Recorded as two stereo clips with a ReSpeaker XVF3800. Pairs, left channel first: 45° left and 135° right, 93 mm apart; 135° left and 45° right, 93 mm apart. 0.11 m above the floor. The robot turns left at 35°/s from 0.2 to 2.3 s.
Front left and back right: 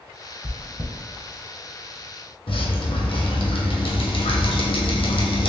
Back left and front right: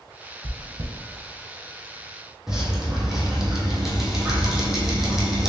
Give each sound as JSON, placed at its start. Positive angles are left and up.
{"t": 0.4, "sound": "chewing", "azimuth_deg": -35, "distance_m": 1.6}
{"t": 2.5, "sound": "dripping", "azimuth_deg": 40, "distance_m": 0.9}